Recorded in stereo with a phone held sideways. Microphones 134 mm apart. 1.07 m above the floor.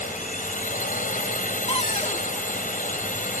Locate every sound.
0.0 s a drone: 75° left (ahead or behind)
1.7 s a cupboard door: 45° left (ahead or behind)